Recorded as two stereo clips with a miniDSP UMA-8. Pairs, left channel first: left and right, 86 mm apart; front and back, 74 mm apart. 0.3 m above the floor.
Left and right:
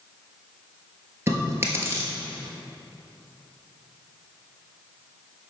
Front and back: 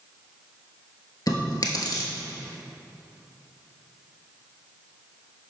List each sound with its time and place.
1.3 s chewing: 30° right, 1.3 m